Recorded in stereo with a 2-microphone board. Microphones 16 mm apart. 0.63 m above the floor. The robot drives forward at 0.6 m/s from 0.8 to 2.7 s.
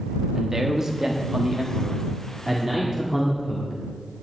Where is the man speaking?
35° right (ahead or behind), 1.0 m; by 4.2 s 25° right (ahead or behind), 1.5 m.